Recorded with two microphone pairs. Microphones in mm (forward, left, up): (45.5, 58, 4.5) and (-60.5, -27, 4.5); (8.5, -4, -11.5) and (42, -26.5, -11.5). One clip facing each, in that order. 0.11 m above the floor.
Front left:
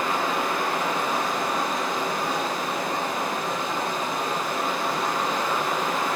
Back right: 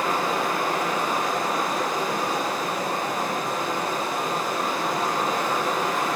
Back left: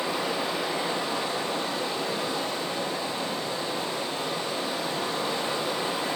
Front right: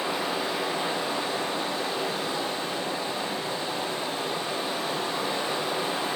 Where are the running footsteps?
No running footsteps in this recording.